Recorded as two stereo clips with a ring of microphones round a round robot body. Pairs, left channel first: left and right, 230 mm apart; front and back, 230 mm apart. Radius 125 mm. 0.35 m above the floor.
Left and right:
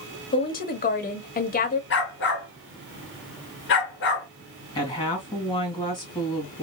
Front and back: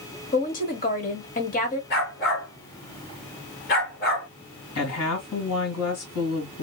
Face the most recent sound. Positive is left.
turn(degrees=20)